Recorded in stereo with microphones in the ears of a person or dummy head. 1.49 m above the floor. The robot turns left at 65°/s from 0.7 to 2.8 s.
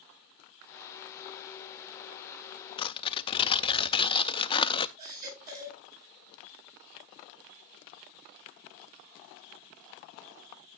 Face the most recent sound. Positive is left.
turn(degrees=-50)  # may be behind; listen again after turning